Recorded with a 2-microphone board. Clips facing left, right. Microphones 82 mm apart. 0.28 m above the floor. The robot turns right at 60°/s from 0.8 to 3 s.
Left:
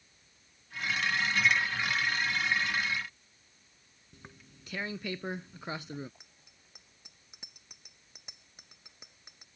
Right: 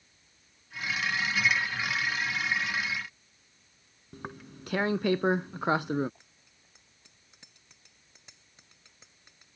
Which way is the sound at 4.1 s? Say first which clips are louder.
Right 12 dB; 65° right (ahead or behind).